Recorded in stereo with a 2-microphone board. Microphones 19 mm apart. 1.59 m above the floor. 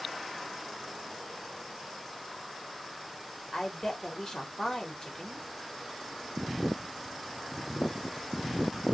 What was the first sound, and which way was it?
A woman speaking, 35° left (ahead or behind).